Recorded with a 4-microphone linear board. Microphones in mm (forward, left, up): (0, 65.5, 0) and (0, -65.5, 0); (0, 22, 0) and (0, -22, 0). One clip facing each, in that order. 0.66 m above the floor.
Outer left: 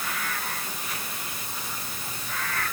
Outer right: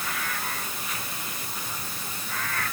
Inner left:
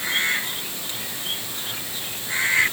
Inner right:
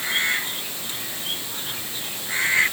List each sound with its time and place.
Only background noise.